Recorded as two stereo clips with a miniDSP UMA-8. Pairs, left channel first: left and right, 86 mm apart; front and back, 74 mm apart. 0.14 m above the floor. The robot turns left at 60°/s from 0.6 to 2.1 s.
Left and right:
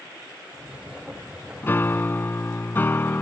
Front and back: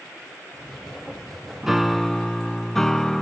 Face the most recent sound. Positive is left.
turn(degrees=80)